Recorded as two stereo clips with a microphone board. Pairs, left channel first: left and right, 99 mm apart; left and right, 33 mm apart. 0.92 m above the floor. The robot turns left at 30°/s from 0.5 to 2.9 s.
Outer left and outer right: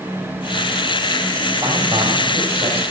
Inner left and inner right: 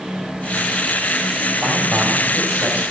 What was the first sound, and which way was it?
A man speaking, 40° right.